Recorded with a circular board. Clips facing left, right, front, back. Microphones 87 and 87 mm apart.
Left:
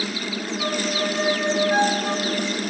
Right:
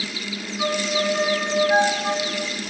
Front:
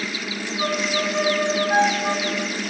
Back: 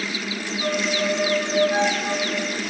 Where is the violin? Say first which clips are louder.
Right 3 dB, even; 35° right, 5 m.